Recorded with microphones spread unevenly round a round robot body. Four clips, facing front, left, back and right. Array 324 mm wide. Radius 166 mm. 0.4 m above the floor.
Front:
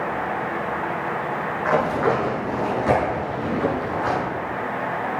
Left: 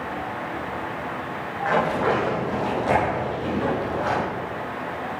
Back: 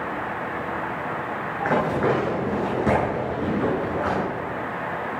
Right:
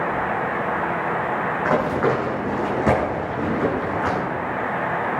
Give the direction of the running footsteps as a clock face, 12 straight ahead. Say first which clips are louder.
Even, front 1 dB; 4 o'clock.